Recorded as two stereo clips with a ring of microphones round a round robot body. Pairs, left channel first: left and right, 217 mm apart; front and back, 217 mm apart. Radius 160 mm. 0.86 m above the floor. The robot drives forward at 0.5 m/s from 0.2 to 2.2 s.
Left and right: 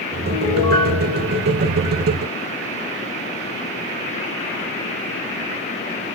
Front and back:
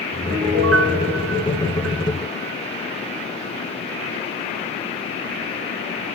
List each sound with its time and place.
0.3 s a piano: 165° left, 8.5 m; by 2.5 s 170° left, 9.5 m